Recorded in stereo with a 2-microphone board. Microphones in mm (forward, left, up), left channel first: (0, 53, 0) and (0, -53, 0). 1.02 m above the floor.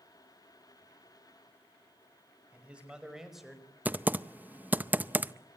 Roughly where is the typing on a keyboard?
Centre.